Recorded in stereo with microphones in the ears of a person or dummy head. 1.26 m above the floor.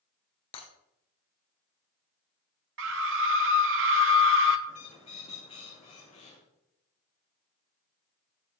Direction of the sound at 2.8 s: 70° right (ahead or behind).